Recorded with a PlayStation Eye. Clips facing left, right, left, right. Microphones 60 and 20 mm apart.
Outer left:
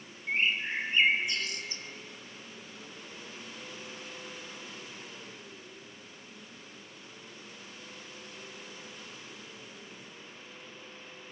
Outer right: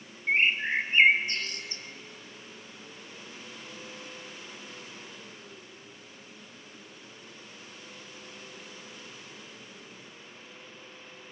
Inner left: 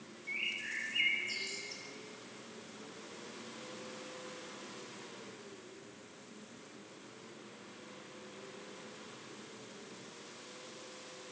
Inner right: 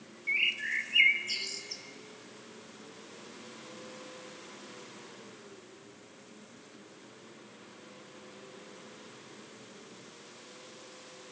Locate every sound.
0.3 s a bird: 45° right (ahead or behind), 1.6 m